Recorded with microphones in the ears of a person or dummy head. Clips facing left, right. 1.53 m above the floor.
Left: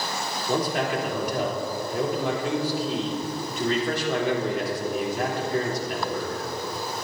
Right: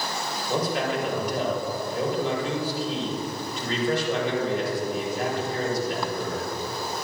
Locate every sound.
0.5 s a man speaking: 55° left (ahead or behind), 3.5 m